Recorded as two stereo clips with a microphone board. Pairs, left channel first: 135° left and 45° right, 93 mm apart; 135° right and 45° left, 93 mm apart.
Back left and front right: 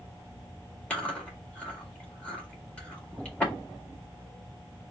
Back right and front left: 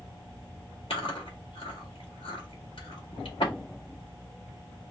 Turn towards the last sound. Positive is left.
turn(degrees=-150)